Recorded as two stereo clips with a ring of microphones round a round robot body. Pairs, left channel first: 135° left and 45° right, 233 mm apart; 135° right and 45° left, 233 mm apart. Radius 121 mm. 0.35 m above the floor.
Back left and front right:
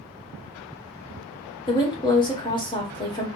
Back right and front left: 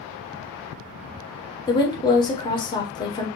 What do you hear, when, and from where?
1.7 s a woman speaking: straight behind, 1.1 m